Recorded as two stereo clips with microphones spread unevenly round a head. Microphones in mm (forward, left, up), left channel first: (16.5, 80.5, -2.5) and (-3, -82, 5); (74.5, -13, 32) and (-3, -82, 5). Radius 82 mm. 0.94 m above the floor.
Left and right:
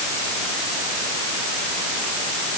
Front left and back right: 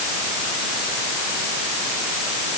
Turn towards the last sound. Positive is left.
No sound to turn to.